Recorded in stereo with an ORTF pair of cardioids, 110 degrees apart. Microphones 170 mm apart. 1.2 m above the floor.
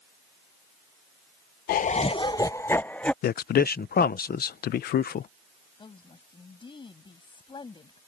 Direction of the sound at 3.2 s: 65° left.